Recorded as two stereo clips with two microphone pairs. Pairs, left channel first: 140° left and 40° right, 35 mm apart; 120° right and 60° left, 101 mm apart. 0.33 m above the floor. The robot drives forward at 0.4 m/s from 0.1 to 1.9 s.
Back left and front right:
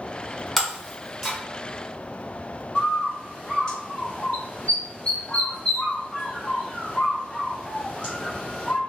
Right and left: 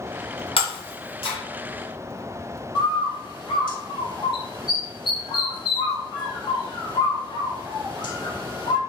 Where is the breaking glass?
135° right, 1.6 m; by 1.4 s 145° right, 1.9 m.